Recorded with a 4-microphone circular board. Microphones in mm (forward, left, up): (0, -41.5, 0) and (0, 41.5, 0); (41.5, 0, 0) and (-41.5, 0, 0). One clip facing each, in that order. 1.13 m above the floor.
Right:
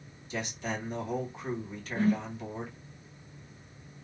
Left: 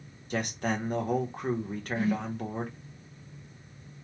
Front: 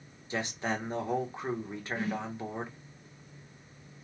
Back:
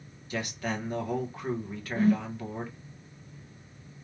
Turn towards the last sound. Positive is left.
turn(degrees=-135)